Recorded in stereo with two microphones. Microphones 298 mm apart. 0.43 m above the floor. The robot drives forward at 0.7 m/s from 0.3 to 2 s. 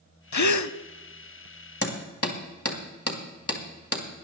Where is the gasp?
65° left (ahead or behind), 0.5 m.